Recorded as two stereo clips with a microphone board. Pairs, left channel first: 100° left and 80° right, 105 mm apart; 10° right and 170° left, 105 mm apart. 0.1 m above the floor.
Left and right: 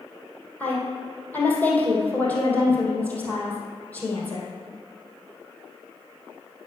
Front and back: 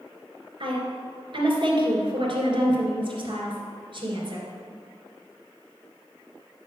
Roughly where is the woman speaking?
Behind.